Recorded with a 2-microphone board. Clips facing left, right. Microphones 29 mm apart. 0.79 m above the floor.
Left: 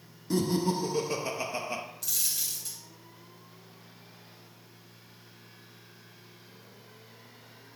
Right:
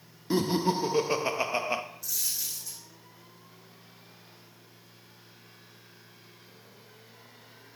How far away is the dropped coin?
About 2.5 m.